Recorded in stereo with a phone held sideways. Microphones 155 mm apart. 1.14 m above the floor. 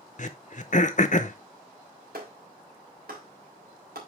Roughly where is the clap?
Right.